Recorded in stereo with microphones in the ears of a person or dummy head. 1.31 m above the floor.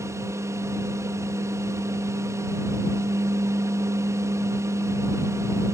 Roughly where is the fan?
Right.